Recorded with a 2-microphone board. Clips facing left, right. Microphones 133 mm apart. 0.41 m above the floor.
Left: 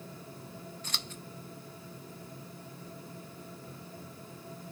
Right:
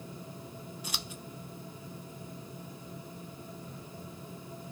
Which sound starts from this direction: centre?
Scissors, at 0.8 s.